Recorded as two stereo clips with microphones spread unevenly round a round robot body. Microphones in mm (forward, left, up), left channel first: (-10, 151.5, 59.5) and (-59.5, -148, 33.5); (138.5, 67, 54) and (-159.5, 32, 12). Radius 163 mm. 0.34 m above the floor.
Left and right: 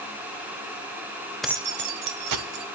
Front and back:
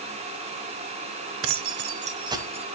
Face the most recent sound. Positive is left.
turn(degrees=-90)